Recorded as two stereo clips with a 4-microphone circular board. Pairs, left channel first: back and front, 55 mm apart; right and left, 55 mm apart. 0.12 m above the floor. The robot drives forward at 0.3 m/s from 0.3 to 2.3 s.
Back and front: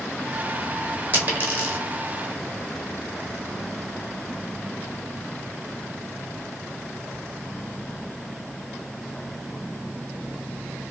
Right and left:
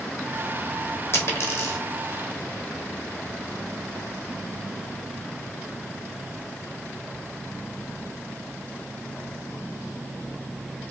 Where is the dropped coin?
55° right, 1.3 m; by 1.8 s 65° right, 1.2 m.